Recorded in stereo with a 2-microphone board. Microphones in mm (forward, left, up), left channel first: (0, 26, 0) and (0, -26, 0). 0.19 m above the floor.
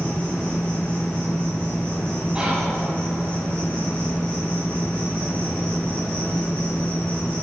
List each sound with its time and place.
0.0 s an insect: 25° left (ahead or behind), 1.8 m
2.4 s whispering: 20° right (ahead or behind), 1.5 m